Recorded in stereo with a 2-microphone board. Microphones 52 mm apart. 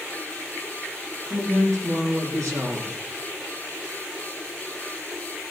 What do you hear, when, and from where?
1.2 s a man speaking: 75° right (ahead or behind), 5 m